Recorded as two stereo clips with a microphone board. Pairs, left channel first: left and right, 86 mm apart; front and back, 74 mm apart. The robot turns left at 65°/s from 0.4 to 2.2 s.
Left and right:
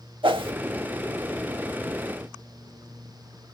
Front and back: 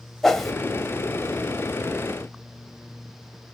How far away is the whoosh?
About 0.5 m.